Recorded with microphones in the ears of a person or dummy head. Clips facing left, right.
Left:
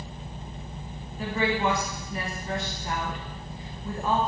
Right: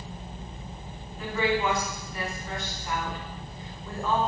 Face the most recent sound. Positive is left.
turn(degrees=35)  # may be behind; listen again after turning